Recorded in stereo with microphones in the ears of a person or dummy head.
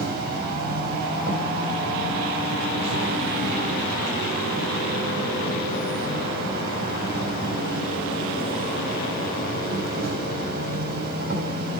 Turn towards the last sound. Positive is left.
turn(degrees=-55)  # may be behind; listen again after turning